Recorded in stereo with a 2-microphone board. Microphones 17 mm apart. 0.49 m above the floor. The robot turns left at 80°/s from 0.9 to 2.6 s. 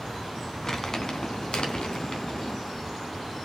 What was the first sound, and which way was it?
Crumpling, 30° left (ahead or behind).